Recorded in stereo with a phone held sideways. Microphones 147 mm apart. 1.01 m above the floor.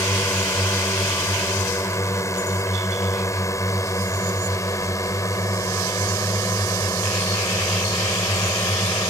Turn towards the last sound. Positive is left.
turn(degrees=25)  # may be behind; listen again after turning